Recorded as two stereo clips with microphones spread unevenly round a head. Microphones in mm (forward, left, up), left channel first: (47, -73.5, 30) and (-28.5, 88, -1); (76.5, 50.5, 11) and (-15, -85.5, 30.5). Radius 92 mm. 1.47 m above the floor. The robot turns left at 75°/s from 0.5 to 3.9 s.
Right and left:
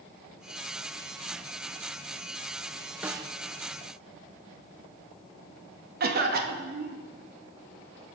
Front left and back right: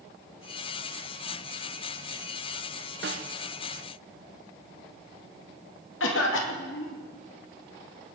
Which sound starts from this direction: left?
A cough, at 6.0 s.